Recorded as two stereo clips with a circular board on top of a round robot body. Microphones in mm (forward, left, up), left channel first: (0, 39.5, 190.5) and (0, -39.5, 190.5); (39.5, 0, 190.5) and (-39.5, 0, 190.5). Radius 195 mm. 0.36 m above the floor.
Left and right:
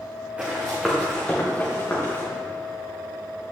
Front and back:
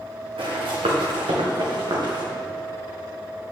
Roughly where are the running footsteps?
Behind.